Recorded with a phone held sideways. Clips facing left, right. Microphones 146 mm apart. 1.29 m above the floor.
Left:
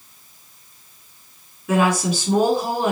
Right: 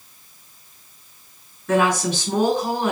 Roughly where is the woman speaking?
Centre.